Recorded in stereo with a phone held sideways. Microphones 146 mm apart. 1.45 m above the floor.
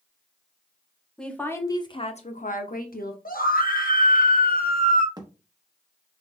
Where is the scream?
80° left, 1.2 m.